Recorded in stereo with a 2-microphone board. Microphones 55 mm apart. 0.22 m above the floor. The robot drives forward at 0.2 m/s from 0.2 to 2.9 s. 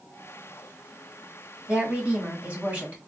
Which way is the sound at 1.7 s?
25° right (ahead or behind).